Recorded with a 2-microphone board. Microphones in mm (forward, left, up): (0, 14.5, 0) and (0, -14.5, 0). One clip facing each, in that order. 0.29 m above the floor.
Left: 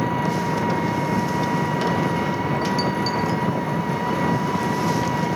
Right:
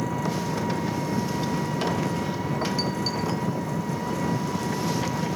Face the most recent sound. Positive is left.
turn(degrees=30)  # may be behind; listen again after turning